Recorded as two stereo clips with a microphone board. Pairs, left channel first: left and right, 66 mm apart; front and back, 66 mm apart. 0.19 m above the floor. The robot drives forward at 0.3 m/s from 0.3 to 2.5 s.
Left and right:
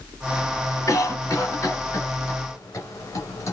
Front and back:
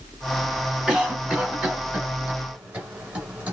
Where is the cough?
105° left, 2 m; by 3.5 s 120° left, 2.5 m.